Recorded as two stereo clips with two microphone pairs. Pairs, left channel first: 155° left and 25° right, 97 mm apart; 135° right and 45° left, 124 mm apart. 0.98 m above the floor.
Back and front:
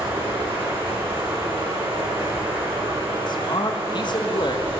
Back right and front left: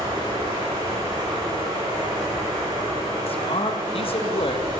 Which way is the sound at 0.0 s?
10° right.